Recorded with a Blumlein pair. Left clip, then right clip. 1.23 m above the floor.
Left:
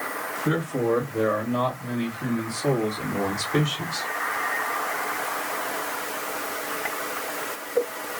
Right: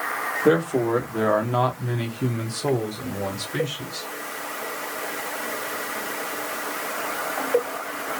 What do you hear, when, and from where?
0.5 s a man speaking: 60° right, 1.4 m; by 4.1 s 30° left, 1.3 m